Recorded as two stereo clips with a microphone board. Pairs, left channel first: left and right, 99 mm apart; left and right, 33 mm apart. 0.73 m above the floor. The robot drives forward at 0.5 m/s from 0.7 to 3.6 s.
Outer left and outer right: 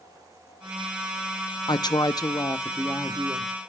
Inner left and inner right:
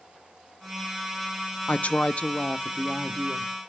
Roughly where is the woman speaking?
Left.